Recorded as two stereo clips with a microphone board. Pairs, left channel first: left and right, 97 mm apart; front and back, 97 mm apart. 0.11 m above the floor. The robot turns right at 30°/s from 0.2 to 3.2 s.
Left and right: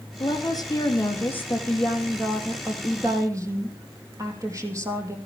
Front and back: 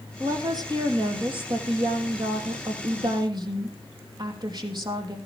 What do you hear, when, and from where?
0.2 s a woman speaking: 125° left, 3 m; by 5.2 s 145° right, 3 m